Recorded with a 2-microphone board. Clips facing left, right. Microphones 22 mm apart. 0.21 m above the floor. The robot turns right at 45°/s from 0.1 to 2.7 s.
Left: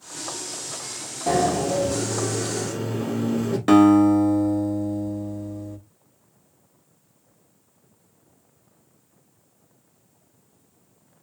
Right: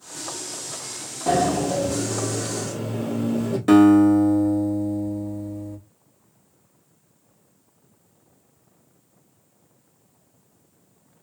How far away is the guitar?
About 0.7 m.